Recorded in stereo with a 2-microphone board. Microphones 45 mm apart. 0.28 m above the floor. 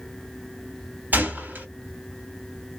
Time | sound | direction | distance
1.1 | a gunshot | 40° right (ahead or behind) | 2 m